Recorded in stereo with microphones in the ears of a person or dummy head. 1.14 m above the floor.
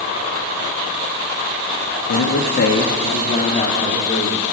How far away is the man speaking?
About 1.4 m.